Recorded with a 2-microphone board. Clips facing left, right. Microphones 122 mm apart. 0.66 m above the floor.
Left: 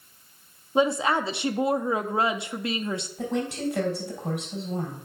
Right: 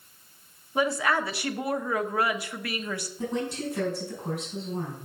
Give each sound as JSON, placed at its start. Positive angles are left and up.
{"t": 0.8, "sound": "a woman speaking", "side_deg": 25, "distance_m": 0.6}
{"t": 3.2, "sound": "a woman speaking", "side_deg": 75, "distance_m": 3.5}